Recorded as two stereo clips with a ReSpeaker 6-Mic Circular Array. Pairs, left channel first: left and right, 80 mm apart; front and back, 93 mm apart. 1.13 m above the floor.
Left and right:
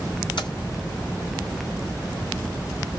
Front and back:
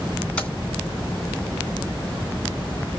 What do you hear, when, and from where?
0.4 s keys jangling: 75° left, 3 m